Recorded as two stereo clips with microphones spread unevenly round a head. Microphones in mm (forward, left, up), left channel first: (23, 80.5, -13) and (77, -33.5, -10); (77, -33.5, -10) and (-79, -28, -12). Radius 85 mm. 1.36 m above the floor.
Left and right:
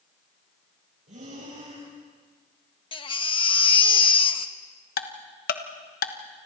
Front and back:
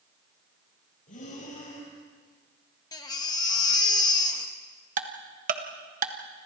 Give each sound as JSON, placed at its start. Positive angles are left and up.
{"t": 1.1, "sound": "breathing", "azimuth_deg": -40, "distance_m": 8.5}
{"t": 2.9, "sound": "a baby crying", "azimuth_deg": 65, "distance_m": 1.2}
{"t": 5.0, "sound": "ticking", "azimuth_deg": 130, "distance_m": 1.3}